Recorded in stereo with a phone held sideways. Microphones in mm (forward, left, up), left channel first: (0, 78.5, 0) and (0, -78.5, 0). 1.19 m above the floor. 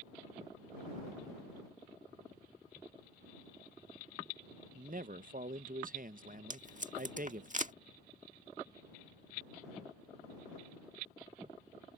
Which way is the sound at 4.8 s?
60° right (ahead or behind).